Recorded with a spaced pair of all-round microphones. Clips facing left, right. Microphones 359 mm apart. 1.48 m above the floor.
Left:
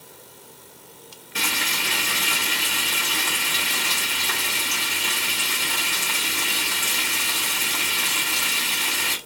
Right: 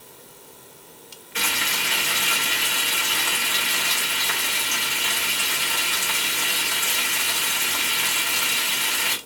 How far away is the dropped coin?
I don't hear a dropped coin.